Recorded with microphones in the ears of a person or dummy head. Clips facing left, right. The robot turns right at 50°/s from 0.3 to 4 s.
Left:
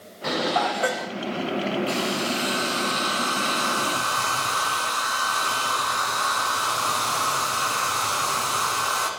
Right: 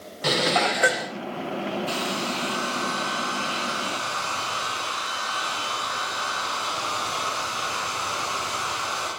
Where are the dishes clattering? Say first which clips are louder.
Right 1 dB; 60° right, 1.0 m; by 1.1 s 15° right, 1.0 m.